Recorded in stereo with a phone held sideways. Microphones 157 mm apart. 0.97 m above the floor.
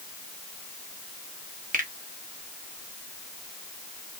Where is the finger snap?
60° right (ahead or behind), 1.2 m.